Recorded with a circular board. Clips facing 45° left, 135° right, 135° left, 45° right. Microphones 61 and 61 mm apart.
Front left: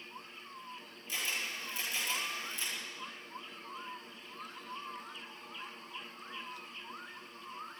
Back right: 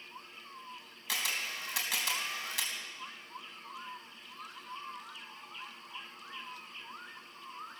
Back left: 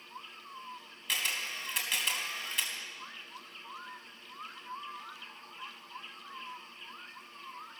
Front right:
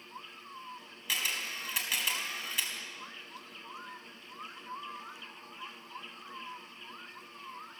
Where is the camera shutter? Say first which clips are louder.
Back right 2 dB, even; 130° right, 3 m.